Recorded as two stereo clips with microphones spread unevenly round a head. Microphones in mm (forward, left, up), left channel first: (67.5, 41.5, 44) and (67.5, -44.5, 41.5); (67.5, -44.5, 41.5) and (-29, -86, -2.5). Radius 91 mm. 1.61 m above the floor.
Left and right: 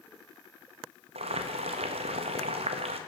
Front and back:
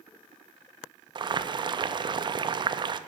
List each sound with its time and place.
1.1 s boiling: 105° right, 0.5 m